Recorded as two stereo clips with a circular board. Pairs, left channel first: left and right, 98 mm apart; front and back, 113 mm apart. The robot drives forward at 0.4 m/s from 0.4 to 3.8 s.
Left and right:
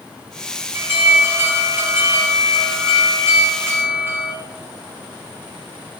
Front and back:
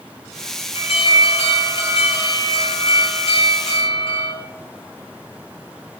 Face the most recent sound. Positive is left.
turn(degrees=-25)